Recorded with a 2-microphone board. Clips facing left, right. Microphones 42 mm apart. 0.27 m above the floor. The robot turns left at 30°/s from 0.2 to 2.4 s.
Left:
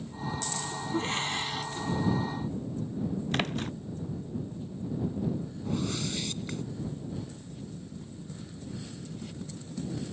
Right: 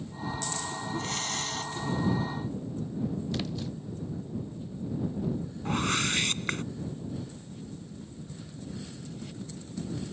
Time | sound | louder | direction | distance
0.9 | breathing | left 5 dB | 35° left (ahead or behind) | ?
3.3 | a splash | left 3 dB | 45° left (ahead or behind) | ?
5.7 | a whoosh | right 5 dB | 55° right (ahead or behind) | ?